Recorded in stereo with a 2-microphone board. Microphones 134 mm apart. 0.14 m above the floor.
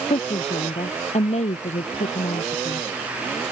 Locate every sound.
0.1 s a woman speaking: 50° left (ahead or behind); by 2.8 s 65° left (ahead or behind)